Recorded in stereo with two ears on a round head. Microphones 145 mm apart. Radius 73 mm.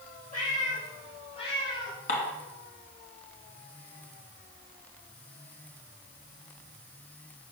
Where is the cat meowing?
55° left (ahead or behind), 5.5 m; by 2.0 s 35° left (ahead or behind), 7.5 m.